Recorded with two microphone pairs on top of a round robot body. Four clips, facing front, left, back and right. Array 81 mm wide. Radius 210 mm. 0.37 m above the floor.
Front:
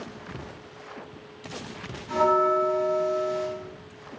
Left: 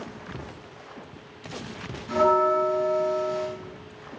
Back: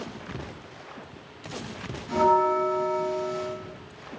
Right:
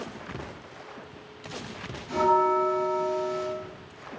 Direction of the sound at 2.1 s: 95° left.